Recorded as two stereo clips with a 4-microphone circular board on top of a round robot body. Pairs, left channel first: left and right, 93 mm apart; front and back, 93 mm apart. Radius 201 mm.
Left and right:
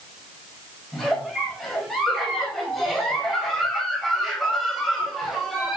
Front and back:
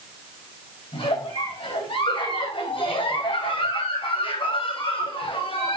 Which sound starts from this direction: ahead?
A giggle, at 0.9 s.